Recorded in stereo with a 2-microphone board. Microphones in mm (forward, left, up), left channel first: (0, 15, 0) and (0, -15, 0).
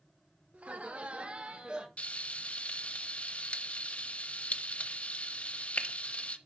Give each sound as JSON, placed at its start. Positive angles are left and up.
{"t": 0.5, "sound": "laughter", "side_deg": -50, "distance_m": 1.4}
{"t": 2.0, "sound": "frying", "side_deg": 45, "distance_m": 0.8}